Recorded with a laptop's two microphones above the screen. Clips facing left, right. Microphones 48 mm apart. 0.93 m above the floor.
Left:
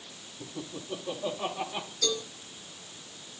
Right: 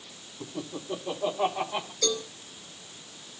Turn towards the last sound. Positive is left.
turn(degrees=-45)  # may be behind; listen again after turning